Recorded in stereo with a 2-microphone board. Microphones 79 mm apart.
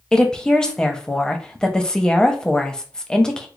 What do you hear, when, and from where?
0.1 s a woman speaking: 10° left (ahead or behind), 0.6 m